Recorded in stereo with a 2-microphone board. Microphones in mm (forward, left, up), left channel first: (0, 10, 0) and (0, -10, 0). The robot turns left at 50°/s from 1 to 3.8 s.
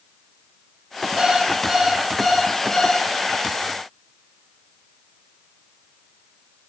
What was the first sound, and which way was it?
An alarm clock, 135° right.